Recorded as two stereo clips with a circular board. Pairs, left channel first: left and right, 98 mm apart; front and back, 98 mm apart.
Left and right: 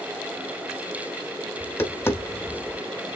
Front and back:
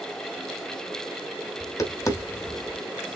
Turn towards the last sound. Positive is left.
turn(degrees=35)